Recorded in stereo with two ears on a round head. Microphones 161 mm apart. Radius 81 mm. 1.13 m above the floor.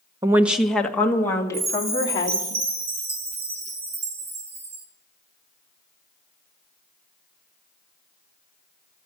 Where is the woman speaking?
20° right (ahead or behind), 1.0 m; by 2.5 s 25° left (ahead or behind), 3.5 m.